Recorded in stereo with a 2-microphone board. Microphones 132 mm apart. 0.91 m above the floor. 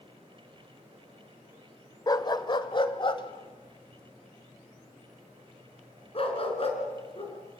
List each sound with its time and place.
2.1 s a dog barking: 30° left (ahead or behind), 1.0 m; by 7.3 s 45° left (ahead or behind), 4.5 m